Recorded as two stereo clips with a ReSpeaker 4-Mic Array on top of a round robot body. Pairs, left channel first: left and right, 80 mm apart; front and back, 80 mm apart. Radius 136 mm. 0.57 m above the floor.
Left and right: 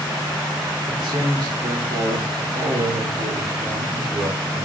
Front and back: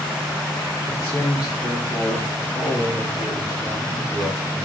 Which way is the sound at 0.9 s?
85° right.